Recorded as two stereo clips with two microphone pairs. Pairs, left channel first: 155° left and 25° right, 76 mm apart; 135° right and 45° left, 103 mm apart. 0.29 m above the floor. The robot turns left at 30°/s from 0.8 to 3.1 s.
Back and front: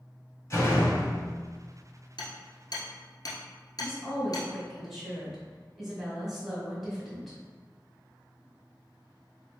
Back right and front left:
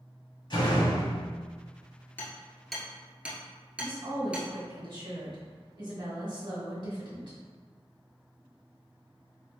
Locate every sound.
0.5 s a door slam: 165° right, 1.1 m; by 1.3 s straight behind, 1.1 m
2.2 s hammering: 150° left, 1.2 m; by 4.5 s 120° left, 1.2 m
3.8 s a woman speaking: 65° left, 1.9 m